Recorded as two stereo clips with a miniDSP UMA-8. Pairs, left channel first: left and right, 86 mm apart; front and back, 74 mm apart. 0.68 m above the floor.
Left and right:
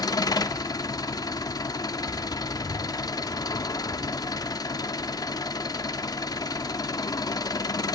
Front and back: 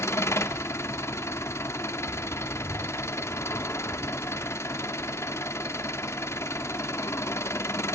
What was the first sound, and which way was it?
An engine running, 50° left.